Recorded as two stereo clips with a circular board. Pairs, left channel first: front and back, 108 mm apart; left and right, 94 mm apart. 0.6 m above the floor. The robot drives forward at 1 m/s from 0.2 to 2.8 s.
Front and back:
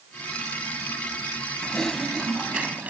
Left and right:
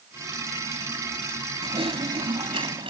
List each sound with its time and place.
1.6 s typing on a keyboard: 80° right; by 2.9 s 105° right